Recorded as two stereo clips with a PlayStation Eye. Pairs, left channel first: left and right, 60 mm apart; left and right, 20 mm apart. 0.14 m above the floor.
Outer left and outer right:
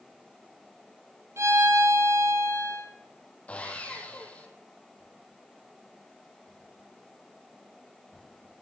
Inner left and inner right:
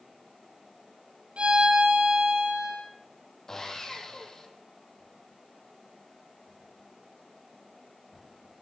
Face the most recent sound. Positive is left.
turn(degrees=25)  # may be behind; listen again after turning